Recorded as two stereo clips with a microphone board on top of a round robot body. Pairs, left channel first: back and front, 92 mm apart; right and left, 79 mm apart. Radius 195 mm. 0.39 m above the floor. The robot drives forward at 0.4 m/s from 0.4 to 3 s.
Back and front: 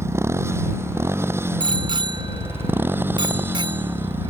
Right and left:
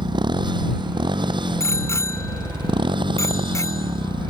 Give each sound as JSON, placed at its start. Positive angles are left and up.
{"t": 0.0, "sound": "a motorcycle", "azimuth_deg": 60}
{"t": 1.6, "sound": "a bicycle bell", "azimuth_deg": -35}